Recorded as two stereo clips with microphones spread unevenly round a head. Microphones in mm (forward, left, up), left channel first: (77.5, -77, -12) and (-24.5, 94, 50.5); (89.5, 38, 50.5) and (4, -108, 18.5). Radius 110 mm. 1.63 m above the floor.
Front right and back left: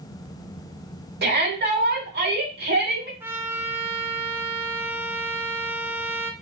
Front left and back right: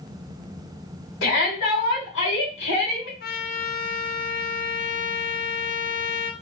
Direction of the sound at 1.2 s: 80° left.